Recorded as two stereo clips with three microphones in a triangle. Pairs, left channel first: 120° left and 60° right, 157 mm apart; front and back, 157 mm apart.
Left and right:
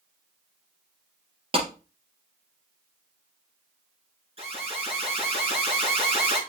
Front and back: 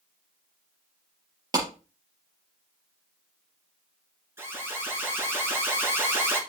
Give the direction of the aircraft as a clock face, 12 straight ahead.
No aircraft in this recording.